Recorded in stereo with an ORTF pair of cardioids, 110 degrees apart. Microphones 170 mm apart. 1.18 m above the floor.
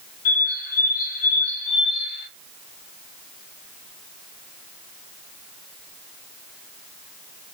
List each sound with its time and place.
0.2 s a bird: 60° left, 1.0 m